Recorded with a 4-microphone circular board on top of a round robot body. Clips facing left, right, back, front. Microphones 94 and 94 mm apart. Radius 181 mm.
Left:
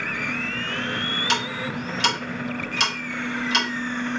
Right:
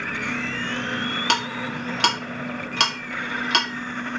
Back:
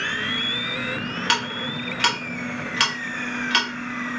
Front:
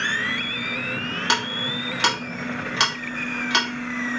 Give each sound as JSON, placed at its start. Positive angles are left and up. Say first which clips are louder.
{"t": 1.3, "sound": "ticking", "louder": "right 1 dB, front 1 dB", "azimuth_deg": -70, "distance_m": 1.7}